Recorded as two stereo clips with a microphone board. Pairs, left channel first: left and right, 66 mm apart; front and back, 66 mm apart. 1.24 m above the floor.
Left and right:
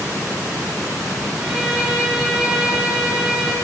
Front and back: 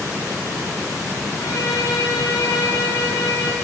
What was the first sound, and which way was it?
A violin, 10° right.